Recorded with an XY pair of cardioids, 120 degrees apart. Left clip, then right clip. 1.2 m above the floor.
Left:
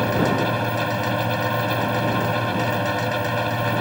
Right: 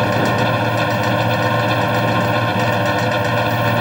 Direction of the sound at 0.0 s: 35° right.